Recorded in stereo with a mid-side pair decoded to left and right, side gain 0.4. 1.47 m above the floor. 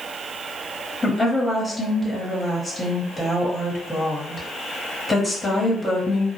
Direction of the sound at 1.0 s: 10° left.